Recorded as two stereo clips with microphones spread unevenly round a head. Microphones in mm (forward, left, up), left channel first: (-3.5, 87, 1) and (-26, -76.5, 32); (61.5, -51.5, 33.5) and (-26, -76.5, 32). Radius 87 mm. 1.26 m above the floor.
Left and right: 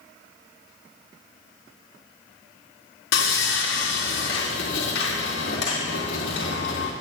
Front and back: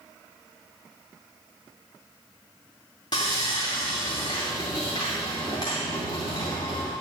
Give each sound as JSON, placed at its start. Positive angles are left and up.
{"t": 3.1, "sound": "sawing", "azimuth_deg": 75, "distance_m": 2.5}